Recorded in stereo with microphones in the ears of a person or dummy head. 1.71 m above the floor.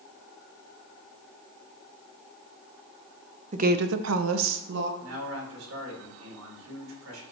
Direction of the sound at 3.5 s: 40° right (ahead or behind).